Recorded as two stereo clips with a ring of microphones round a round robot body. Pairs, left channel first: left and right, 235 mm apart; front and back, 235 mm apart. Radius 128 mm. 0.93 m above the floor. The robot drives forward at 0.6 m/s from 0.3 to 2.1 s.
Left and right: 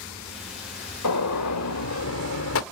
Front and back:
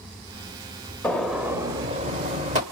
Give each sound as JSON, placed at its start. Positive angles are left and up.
{"t": 1.0, "sound": "a gunshot", "azimuth_deg": 85, "distance_m": 1.2}